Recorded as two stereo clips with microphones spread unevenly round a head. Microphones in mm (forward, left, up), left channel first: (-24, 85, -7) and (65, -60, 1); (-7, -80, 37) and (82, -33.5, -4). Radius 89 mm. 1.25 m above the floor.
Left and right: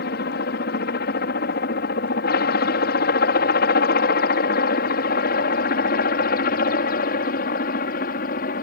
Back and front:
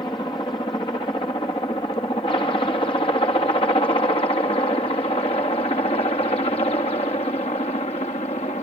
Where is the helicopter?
140° left; by 8.6 s 155° left.